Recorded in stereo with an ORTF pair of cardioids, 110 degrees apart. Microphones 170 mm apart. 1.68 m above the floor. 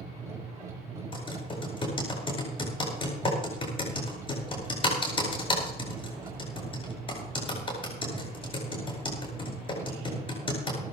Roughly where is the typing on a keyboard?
Ahead left.